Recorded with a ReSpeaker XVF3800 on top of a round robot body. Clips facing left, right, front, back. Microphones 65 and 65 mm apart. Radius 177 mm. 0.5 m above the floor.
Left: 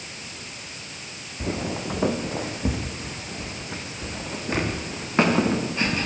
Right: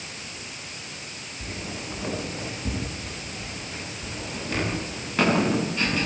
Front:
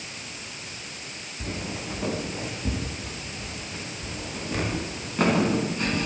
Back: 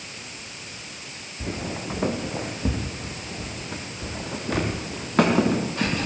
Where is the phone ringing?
No phone ringing in this recording.